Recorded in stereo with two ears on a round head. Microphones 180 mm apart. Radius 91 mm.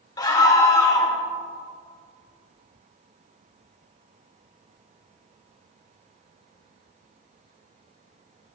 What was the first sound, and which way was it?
A scream, 20° left (ahead or behind).